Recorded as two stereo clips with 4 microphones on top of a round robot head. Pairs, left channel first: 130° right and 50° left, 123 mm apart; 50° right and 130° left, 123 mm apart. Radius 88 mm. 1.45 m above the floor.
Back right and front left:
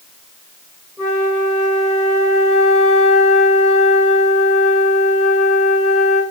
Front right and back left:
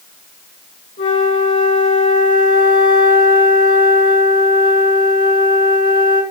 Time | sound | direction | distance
1.0 | a flute | 40° right | 8 m